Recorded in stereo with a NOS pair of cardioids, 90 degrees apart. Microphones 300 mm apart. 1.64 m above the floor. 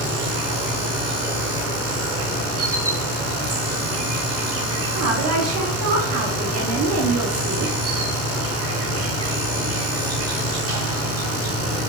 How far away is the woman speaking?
About 1.0 m.